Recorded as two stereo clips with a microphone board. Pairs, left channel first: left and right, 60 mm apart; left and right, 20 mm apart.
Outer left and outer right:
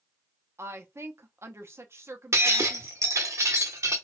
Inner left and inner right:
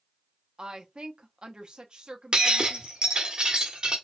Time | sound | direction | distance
0.6 | a woman speaking | 45° right (ahead or behind) | 0.7 m
2.3 | breaking glass | 50° right (ahead or behind) | 0.9 m